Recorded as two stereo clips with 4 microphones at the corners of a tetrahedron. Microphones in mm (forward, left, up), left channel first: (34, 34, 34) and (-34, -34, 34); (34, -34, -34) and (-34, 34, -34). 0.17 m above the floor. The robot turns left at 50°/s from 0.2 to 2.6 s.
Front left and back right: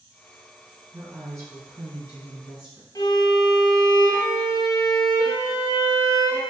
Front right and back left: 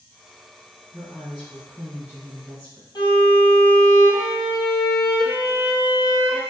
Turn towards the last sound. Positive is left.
turn(degrees=-5)